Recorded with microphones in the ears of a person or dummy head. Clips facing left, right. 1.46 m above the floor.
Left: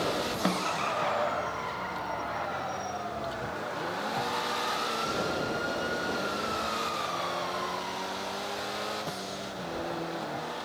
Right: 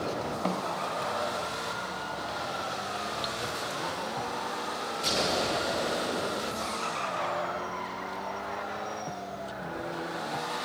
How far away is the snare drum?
About 0.5 m.